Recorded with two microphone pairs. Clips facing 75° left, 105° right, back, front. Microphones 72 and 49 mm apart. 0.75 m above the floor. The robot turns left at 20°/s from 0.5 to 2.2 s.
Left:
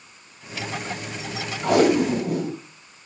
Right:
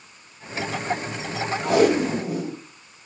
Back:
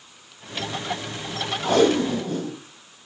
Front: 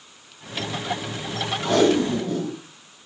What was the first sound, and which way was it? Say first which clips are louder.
Tape being pulled: left 1 dB, even; 115° left.